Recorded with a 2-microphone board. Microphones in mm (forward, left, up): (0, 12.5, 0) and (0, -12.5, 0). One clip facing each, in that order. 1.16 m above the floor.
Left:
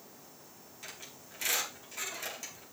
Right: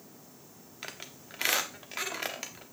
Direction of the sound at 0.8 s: 45° right (ahead or behind).